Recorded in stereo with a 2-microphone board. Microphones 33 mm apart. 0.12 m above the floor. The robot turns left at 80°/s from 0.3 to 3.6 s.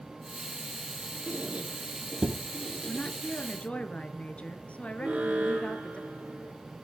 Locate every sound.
1.3 s a squeak: 45° right (ahead or behind), 1.4 m; by 3.2 s 35° left (ahead or behind), 1.4 m
2.9 s a woman speaking: 130° left, 1.4 m; by 6.0 s 70° left, 1.4 m
5.0 s an alarm: 45° right (ahead or behind), 3.5 m